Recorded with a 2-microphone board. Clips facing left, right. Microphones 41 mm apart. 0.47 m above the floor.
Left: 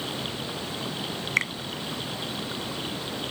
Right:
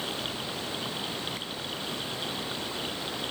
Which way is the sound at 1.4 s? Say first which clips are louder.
Left 12 dB; 75° left (ahead or behind).